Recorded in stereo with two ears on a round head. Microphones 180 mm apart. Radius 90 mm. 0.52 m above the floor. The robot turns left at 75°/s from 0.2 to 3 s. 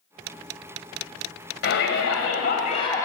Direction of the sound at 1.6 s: 120° left.